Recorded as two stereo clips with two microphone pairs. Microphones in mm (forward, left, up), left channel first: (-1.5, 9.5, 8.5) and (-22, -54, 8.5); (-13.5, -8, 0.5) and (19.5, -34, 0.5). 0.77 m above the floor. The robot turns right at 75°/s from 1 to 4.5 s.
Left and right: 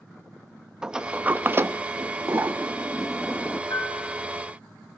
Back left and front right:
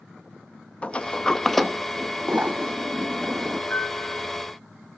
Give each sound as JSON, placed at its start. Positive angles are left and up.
{"t": 0.8, "sound": "a sliding door", "azimuth_deg": 180, "distance_m": 0.8}
{"t": 3.7, "sound": "a piano", "azimuth_deg": 70, "distance_m": 2.5}